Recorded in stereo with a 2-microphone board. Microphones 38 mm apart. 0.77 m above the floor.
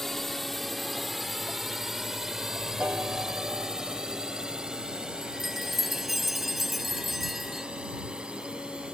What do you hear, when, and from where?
0.0 s a drone: 10° left (ahead or behind); by 8.9 s 25° right (ahead or behind)
2.8 s a piano: 60° right (ahead or behind)
5.2 s a chime: 5° right (ahead or behind)